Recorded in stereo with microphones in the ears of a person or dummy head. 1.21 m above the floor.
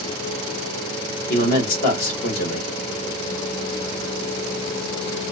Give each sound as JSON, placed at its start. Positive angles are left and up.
{"t": 1.3, "sound": "a man speaking", "side_deg": 50, "distance_m": 1.4}